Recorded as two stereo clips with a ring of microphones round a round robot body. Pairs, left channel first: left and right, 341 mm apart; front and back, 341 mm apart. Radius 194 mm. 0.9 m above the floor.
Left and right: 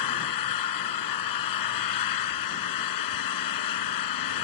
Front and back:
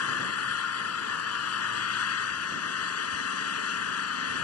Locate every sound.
0.0 s an engine running: 50° left